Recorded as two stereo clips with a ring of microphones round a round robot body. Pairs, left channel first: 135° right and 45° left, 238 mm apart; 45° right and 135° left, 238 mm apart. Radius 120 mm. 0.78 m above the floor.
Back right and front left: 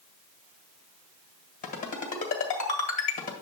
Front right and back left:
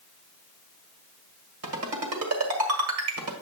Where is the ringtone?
165° left, 1.7 m.